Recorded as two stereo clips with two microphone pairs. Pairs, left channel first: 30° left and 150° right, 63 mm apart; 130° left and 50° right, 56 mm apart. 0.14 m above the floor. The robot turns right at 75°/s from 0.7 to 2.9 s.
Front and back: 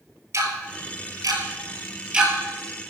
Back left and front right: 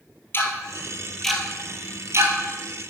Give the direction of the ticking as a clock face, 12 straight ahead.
6 o'clock.